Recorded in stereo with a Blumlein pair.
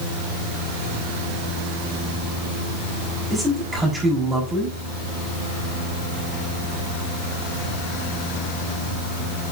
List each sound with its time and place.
3.3 s a man speaking: 10° right, 4.5 m